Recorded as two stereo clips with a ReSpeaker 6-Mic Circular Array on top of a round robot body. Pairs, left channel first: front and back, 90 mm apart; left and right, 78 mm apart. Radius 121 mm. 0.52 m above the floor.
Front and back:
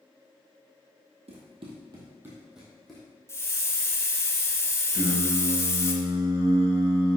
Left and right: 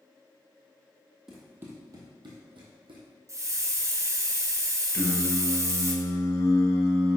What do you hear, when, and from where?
1.3 s running footsteps: 175° right, 1.4 m; by 3.0 s 85° right, 2 m
3.3 s a hiss: 55° right, 1.1 m
4.9 s singing: 145° left, 1.4 m